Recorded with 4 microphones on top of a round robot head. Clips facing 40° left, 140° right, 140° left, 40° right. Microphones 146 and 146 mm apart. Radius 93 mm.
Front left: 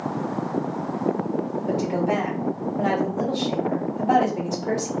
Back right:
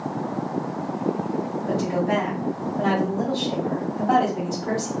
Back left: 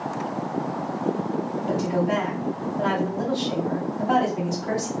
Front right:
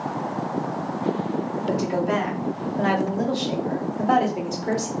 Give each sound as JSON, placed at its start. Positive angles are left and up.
{"t": 1.7, "sound": "a woman speaking", "azimuth_deg": -30, "distance_m": 1.7}